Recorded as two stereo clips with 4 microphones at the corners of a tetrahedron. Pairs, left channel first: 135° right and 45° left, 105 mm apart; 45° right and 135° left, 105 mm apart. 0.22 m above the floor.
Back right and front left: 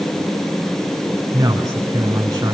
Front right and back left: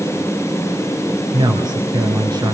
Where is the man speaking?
95° left, 2 m.